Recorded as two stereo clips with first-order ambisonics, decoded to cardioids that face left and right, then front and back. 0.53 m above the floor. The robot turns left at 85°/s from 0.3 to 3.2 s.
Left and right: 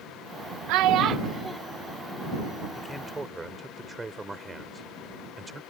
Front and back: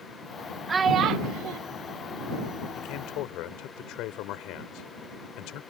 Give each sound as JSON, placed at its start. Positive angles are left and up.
{"t": 0.7, "sound": "a child speaking", "azimuth_deg": -105}
{"t": 2.8, "sound": "a man speaking", "azimuth_deg": 25}